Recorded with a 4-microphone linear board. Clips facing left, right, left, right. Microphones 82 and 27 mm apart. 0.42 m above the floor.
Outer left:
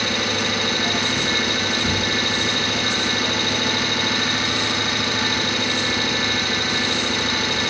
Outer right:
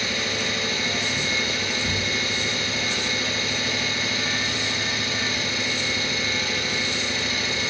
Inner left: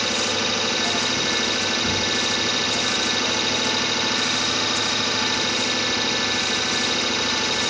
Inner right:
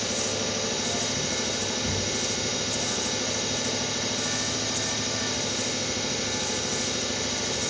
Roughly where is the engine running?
Left.